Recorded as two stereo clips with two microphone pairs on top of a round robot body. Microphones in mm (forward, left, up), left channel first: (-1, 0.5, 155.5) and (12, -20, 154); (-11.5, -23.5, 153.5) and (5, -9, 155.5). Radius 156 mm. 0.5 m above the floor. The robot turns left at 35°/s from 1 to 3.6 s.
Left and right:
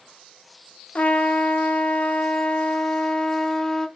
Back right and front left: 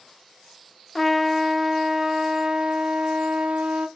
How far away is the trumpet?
About 1.0 m.